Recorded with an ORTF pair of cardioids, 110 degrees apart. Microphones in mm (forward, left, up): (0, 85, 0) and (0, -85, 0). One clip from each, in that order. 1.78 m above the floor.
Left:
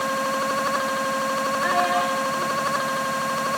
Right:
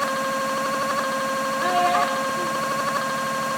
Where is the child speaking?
60° right, 5 m.